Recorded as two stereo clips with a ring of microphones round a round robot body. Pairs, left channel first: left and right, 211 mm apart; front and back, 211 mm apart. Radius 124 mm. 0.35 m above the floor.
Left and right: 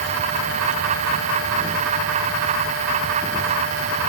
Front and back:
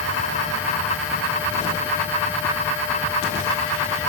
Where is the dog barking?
I don't hear a dog barking.